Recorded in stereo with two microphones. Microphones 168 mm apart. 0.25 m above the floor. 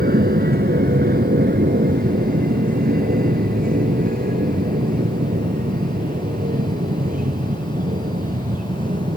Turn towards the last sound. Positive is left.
turn(degrees=-50)  # may be behind; listen again after turning